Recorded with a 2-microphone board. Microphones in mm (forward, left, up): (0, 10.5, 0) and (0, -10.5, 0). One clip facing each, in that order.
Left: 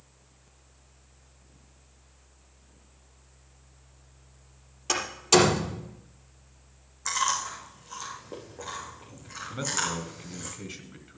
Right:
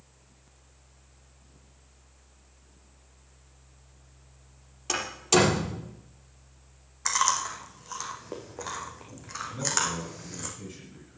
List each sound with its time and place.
4.9 s a door slam: 5° left (ahead or behind), 4.5 m
7.0 s chewing: 45° right (ahead or behind), 3 m
9.5 s a man speaking: 40° left (ahead or behind), 2.5 m